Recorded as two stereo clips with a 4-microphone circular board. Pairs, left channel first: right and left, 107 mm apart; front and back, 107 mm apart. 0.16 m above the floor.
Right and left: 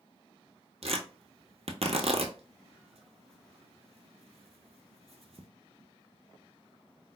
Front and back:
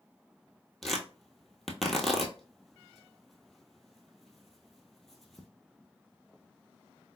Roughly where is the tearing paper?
Left.